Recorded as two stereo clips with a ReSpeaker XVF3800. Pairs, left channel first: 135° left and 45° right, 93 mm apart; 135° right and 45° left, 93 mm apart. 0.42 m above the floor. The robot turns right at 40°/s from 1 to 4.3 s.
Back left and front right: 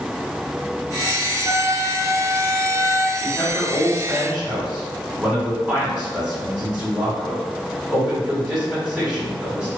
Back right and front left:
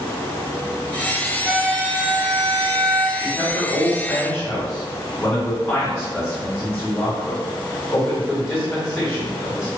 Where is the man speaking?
145° right, 1.4 m; by 9.7 s 100° right, 1.4 m.